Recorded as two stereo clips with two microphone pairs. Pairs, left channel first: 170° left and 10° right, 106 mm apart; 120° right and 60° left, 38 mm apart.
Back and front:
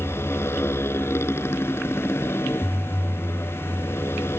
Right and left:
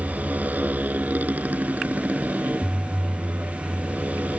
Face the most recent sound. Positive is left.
turn(degrees=100)